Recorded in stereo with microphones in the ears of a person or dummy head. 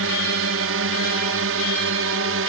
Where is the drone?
70° right (ahead or behind).